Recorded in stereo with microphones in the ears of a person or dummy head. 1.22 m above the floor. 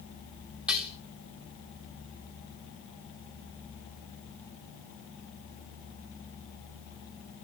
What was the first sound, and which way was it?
Dishes clattering, 5° left (ahead or behind).